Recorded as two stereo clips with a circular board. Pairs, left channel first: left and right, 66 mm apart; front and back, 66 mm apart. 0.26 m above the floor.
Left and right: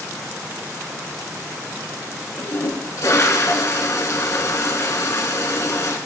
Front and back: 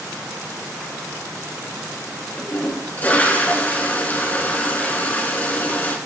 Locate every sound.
2.4 s a toilet flushing: 60° left, 2 m